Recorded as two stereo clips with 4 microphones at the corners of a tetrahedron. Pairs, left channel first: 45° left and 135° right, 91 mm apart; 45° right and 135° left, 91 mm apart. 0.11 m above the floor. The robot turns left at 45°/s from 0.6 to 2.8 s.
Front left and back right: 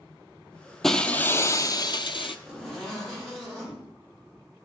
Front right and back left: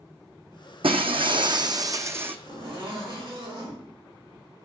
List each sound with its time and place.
0.8 s breaking glass: 135° left, 0.7 m; by 2.4 s 65° left, 0.7 m
2.5 s a zipper: 140° left, 5.5 m; by 3.8 s 125° left, 5.5 m